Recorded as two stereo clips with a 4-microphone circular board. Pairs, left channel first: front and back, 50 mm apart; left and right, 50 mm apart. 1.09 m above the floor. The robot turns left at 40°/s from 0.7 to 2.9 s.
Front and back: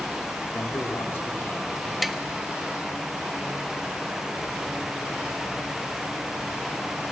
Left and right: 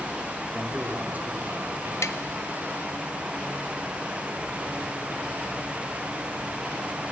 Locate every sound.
0.5 s a man speaking: 15° right, 2.5 m; by 1.9 s 65° right, 2.5 m
2.0 s tapping: 90° left, 0.7 m; by 2.2 s 85° left, 0.7 m